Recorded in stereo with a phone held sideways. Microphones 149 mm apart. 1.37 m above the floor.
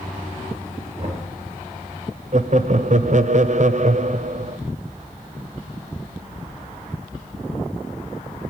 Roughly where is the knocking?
Right.